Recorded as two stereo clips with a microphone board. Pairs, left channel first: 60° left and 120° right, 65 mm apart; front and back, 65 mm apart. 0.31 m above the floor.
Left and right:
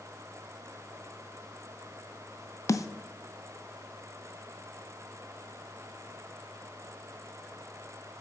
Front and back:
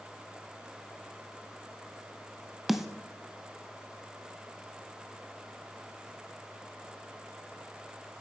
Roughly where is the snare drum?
Left.